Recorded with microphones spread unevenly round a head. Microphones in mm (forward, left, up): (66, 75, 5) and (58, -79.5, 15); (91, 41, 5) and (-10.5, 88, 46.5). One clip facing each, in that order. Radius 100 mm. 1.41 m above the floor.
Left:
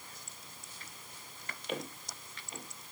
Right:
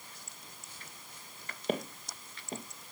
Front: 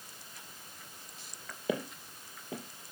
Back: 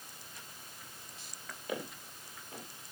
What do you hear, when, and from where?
1.7 s footsteps: 55° right, 2.5 m